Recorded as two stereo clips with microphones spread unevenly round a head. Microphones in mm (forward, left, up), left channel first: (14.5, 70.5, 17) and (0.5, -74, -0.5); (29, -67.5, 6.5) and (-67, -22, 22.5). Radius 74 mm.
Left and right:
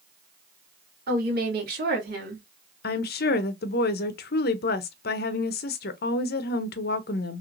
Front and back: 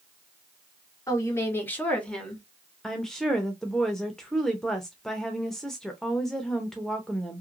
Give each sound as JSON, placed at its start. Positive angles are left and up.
{"t": 1.1, "sound": "a woman speaking", "azimuth_deg": -85, "distance_m": 1.9}
{"t": 2.8, "sound": "a woman speaking", "azimuth_deg": 60, "distance_m": 0.6}